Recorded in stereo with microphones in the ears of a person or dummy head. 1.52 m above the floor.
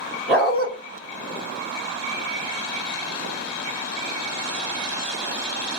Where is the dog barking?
Centre (ahead or behind), 1.8 m.